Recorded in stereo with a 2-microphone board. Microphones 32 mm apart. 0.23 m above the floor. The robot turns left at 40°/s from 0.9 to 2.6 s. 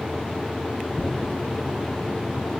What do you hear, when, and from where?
0.9 s tearing paper: 20° left (ahead or behind), 1.5 m